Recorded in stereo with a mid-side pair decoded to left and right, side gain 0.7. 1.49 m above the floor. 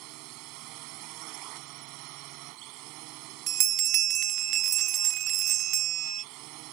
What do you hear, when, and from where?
0.0 s a drone: 65° right
3.5 s a bell: 50° right